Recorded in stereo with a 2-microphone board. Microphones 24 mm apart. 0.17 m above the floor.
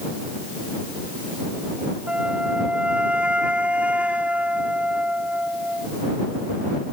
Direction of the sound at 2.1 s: 60° right (ahead or behind).